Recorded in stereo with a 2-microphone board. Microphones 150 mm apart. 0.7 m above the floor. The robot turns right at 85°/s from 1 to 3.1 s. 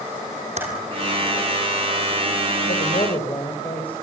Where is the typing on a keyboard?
55° right (ahead or behind), 6.5 m.